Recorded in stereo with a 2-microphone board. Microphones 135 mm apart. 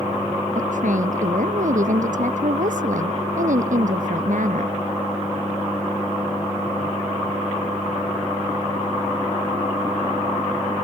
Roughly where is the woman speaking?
Right.